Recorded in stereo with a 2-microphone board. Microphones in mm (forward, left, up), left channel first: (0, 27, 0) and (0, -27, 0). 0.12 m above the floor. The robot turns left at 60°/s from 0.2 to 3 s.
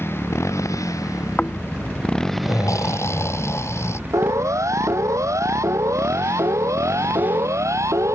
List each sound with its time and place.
0.0 s a motorcycle: 135° left; by 8.2 s 35° right
1.4 s snoring: 155° left; by 4.0 s 55° left
4.1 s a siren: 70° right (ahead or behind); by 8.2 s 65° right (ahead or behind)